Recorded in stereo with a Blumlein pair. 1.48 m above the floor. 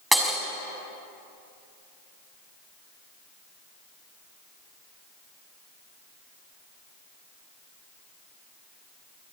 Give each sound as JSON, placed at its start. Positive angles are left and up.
{"t": 0.1, "sound": "breaking glass", "azimuth_deg": -5, "distance_m": 5.5}